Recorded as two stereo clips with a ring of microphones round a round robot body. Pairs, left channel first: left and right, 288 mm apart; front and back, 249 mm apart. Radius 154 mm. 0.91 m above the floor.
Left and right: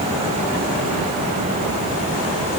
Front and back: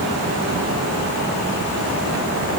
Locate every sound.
Only background noise.